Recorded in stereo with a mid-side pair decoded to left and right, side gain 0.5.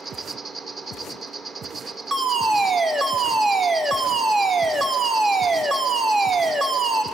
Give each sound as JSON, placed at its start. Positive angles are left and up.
{"t": 0.0, "sound": "an insect", "azimuth_deg": -45, "distance_m": 3.0}
{"t": 2.1, "sound": "a fire alarm", "azimuth_deg": -50, "distance_m": 3.0}